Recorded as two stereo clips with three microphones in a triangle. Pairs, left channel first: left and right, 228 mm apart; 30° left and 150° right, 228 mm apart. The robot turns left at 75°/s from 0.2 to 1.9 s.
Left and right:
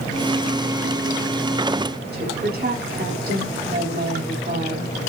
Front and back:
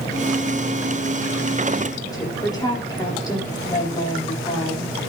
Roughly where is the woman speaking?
Ahead right.